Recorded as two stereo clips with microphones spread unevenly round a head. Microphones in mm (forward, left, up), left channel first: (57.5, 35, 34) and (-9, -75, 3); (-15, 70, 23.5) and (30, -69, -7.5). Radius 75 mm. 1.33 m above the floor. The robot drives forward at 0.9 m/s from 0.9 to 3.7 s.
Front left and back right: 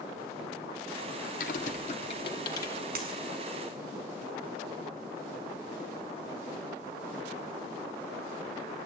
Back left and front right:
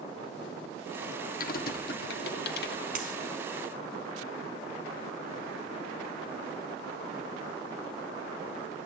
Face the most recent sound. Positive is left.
turn(degrees=-120)